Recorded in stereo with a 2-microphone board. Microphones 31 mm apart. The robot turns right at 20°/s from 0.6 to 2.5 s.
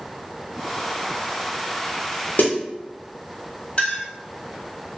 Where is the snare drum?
80° left, 1.3 m; by 2.5 s 75° left (ahead or behind), 1.3 m.